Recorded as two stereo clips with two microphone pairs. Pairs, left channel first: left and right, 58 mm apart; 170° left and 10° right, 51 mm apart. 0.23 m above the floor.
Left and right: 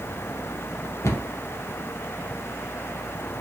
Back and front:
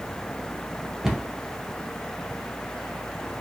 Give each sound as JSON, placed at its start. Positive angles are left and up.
{"t": 1.0, "sound": "a cupboard door", "azimuth_deg": 70, "distance_m": 0.7}